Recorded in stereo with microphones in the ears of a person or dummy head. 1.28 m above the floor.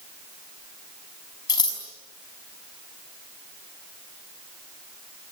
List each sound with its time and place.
1.5 s scissors: 30° left (ahead or behind), 5 m